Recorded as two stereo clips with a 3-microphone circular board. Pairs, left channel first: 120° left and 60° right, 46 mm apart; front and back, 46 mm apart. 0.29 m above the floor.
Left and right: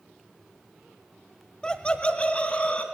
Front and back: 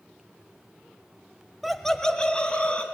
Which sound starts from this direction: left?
Laughter, at 1.6 s.